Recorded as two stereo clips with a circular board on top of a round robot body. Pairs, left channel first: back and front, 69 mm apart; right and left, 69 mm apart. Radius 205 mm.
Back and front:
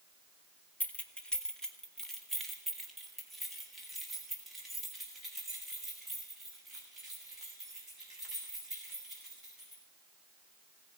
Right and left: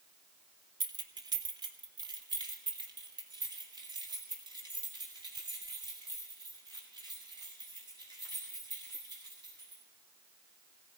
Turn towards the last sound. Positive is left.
turn(degrees=85)